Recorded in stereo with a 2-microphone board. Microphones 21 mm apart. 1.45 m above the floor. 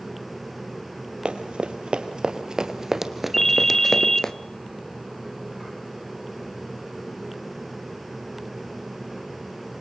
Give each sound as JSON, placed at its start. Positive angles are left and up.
{"t": 1.2, "sound": "running footsteps", "side_deg": -55, "distance_m": 2.5}
{"t": 3.3, "sound": "a ringtone", "side_deg": 15, "distance_m": 0.7}